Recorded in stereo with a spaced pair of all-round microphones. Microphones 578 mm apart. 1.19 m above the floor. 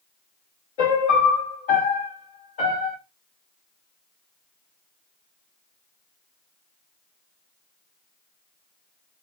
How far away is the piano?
About 0.8 m.